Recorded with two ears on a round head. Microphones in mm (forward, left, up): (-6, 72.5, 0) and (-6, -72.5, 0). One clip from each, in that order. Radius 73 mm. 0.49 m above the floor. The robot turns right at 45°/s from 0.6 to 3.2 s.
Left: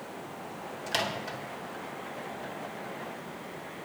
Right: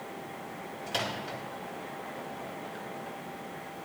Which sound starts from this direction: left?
A microwave, at 0.9 s.